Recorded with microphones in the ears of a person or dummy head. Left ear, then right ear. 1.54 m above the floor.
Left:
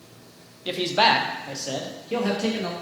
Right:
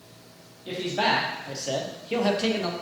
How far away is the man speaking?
About 0.6 m.